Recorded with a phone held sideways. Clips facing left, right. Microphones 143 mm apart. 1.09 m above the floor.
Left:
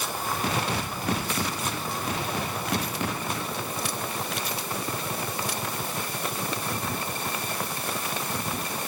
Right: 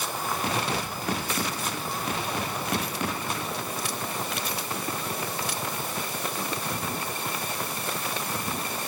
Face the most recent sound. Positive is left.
No sound to turn to.